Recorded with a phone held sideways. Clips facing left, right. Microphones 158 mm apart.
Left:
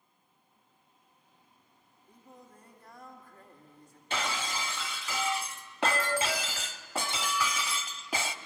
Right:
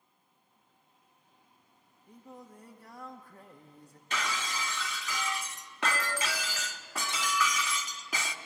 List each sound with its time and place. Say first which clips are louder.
2.1 s singing: right 5 dB; 75° right (ahead or behind), 1.6 m
4.1 s breaking glass: left 2 dB; 30° left (ahead or behind), 1.0 m